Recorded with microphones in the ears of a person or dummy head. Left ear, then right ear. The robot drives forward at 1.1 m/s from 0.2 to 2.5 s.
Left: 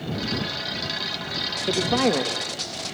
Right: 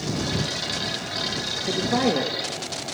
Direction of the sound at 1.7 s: 35° left (ahead or behind).